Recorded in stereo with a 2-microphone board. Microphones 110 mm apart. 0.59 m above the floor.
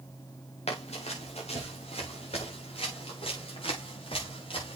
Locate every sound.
0.7 s running footsteps: 75° left (ahead or behind), 4.5 m; by 4.8 s 55° left (ahead or behind), 6 m